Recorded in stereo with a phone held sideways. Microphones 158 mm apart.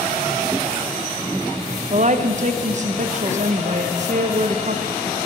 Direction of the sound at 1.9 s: 50° right (ahead or behind).